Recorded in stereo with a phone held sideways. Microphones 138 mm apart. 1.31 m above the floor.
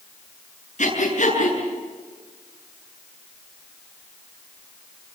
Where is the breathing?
60° left (ahead or behind), 8.5 m.